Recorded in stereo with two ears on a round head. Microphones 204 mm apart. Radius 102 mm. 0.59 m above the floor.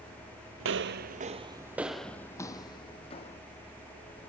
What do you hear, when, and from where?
0.6 s footsteps: 55° right (ahead or behind), 1.0 m; by 3.4 s 25° left (ahead or behind), 1.9 m